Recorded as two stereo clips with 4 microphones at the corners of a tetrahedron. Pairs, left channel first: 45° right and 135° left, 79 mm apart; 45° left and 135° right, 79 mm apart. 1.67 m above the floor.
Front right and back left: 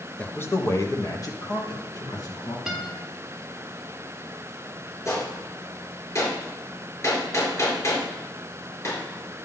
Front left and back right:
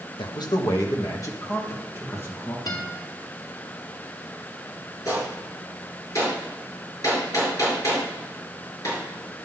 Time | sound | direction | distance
0.2 | a man speaking | 30° left | 0.8 m
2.7 | a guitar | 50° left | 2 m
5.0 | a gunshot | 5° left | 4.5 m